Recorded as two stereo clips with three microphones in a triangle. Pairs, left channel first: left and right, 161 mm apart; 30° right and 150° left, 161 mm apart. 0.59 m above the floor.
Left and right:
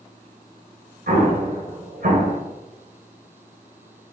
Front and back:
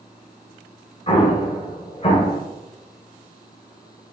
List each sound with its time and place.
1.1 s an explosion: 80° right, 2 m